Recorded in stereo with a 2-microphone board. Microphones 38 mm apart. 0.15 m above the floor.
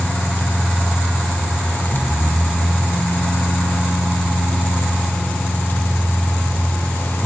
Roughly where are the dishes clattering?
No dishes clattering in this recording.